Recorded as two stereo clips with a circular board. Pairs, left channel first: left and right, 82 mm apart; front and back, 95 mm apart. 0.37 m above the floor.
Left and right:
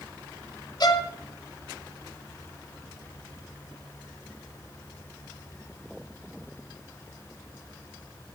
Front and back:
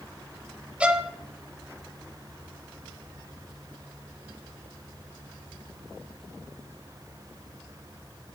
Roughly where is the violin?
Left.